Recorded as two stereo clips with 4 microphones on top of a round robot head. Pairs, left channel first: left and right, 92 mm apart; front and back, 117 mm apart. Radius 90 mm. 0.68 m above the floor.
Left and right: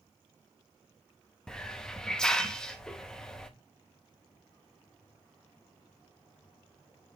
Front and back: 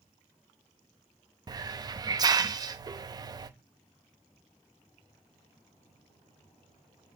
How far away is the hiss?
About 0.8 m.